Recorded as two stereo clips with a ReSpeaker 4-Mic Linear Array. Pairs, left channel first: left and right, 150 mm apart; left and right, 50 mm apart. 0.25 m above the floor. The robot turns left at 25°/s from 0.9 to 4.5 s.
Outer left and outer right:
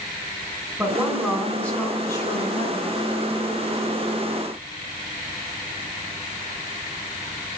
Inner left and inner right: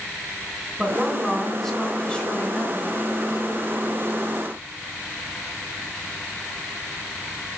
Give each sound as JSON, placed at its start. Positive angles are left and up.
{"t": 0.8, "sound": "a woman speaking", "azimuth_deg": -175, "distance_m": 2.5}